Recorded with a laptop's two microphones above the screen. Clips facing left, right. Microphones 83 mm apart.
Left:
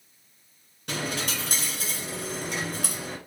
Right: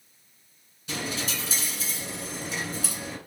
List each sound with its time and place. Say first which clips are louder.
0.9 s a dropped coin: left 2 dB; 60° left (ahead or behind), 1.4 m